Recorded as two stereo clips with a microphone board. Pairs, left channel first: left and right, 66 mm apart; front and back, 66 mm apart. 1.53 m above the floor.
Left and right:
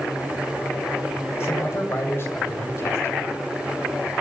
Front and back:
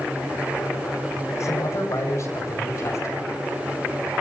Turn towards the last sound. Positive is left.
turn(degrees=40)